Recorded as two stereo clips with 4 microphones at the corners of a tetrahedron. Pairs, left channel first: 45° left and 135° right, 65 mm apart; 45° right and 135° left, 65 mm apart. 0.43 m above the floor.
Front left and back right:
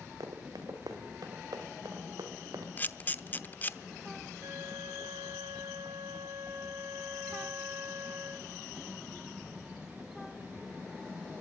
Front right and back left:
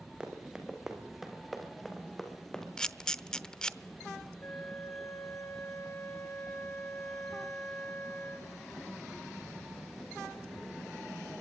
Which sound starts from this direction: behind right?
Running footsteps, at 0.2 s.